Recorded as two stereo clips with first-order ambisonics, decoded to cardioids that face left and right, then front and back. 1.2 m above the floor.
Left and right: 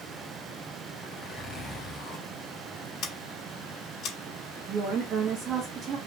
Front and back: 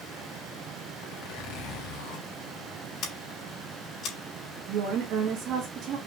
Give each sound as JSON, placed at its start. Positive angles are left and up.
{"t": 1.0, "sound": "a zipper", "azimuth_deg": 15, "distance_m": 1.9}
{"t": 3.0, "sound": "scissors", "azimuth_deg": 45, "distance_m": 3.0}
{"t": 4.7, "sound": "a woman speaking", "azimuth_deg": -145, "distance_m": 1.6}